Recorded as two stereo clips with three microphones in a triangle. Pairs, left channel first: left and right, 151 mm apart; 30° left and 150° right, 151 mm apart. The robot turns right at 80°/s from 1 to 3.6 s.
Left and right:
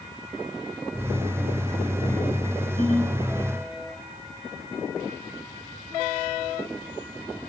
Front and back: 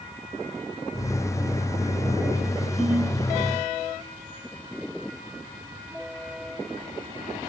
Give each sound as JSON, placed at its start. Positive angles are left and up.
{"t": 2.8, "sound": "a ringtone", "azimuth_deg": 115, "distance_m": 5.0}